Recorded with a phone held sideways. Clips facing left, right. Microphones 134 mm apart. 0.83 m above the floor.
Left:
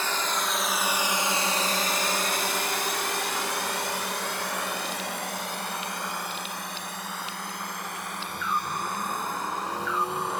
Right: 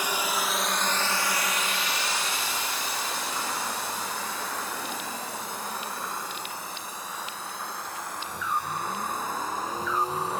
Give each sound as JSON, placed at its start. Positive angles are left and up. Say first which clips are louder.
{"t": 0.0, "sound": "a drone", "louder": "even", "side_deg": -15}